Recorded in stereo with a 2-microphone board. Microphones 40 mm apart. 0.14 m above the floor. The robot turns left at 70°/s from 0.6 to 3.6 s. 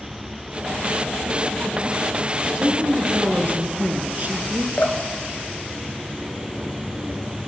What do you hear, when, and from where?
2.5 s a woman speaking: 45° right, 1.7 m; by 4.7 s 120° right, 1.7 m
4.8 s dripping: 50° left (ahead or behind), 0.8 m